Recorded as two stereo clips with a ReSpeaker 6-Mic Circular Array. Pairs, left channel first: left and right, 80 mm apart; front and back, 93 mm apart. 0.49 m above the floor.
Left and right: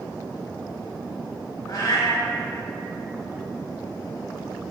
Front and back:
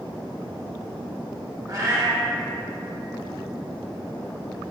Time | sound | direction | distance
1.7 | a cat meowing | 125° left | 0.6 m